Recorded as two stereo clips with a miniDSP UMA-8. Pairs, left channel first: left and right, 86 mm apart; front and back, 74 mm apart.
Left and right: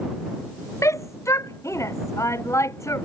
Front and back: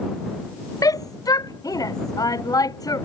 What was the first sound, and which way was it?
A shout, 35° left.